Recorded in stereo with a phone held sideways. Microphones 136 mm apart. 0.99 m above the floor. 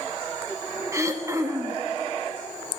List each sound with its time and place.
0.9 s throat clearing: 20° right (ahead or behind), 0.7 m